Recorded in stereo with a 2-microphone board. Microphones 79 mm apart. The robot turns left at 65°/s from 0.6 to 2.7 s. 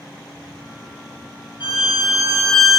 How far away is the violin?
About 1.4 m.